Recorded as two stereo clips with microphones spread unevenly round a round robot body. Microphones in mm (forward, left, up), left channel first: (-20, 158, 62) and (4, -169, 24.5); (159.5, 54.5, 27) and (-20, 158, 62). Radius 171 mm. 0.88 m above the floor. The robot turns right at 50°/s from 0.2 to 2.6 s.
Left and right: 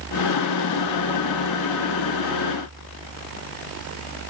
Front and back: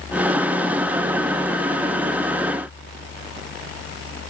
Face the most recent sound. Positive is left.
No sound to turn to.